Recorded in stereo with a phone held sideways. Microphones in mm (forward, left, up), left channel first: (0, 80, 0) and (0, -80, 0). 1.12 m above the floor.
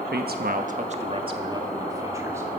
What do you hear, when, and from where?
0.1 s a man speaking: 85° right, 1.1 m; by 2.5 s 15° right (ahead or behind), 3 m